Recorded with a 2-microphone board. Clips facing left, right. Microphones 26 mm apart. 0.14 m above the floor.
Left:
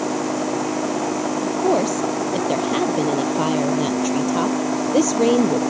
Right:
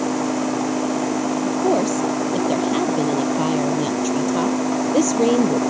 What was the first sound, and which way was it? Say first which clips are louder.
A woman speaking: left 1 dB; 10° left (ahead or behind).